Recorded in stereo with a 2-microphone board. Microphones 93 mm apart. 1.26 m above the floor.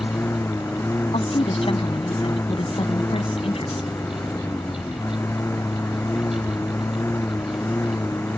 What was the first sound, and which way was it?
A lawn mower, 25° left (ahead or behind).